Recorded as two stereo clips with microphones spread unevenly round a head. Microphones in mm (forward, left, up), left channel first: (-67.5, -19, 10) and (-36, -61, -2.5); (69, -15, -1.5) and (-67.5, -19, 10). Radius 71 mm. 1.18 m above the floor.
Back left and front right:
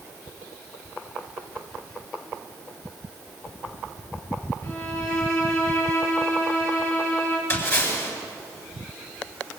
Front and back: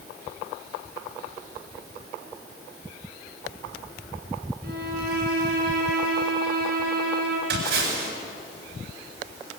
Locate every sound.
4.6 s a violin: 150° left, 8.5 m
7.5 s a splash: 160° left, 7.5 m